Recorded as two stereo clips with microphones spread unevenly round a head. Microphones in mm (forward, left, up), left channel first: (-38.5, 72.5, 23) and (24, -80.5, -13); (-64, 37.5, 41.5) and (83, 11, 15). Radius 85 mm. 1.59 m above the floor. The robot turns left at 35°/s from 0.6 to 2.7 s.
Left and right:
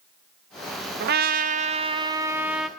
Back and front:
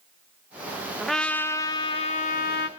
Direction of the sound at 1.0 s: 100° right.